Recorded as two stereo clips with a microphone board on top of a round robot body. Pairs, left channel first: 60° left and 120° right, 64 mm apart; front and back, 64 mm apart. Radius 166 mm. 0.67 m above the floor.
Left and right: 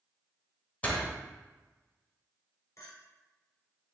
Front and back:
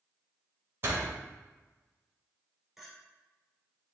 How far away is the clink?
About 3.5 m.